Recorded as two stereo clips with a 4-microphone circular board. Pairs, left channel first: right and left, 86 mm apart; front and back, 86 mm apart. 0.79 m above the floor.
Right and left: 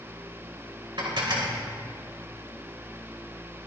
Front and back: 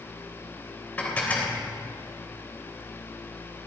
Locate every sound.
1.0 s dishes clattering: 70° left, 2.5 m